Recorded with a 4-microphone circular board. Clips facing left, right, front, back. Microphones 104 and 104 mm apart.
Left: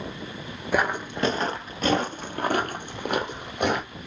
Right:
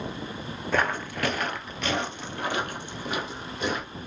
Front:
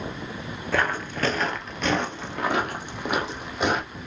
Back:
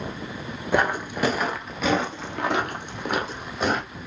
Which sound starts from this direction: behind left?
Footsteps, at 0.7 s.